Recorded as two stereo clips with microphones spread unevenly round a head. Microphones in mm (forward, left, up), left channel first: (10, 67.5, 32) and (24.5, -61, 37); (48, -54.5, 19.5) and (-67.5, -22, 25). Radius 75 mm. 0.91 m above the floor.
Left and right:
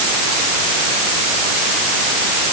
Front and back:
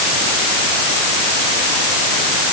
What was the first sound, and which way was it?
Only background noise.